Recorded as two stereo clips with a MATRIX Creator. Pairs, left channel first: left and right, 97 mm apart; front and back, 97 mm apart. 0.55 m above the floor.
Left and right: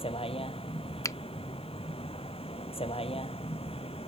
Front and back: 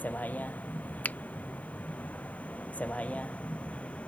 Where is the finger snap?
60° left.